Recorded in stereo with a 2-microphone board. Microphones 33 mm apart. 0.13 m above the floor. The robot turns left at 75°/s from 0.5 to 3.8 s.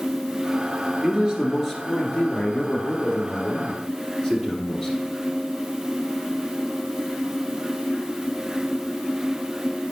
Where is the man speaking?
130° right, 2 m; by 5.0 s 20° left, 2 m.